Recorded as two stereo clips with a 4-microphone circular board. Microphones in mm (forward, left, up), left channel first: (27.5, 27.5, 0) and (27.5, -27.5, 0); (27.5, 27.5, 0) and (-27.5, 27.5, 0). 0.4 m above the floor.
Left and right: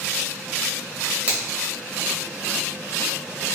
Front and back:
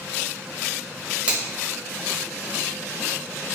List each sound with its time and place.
1.3 s a finger snap: 130° right, 1.2 m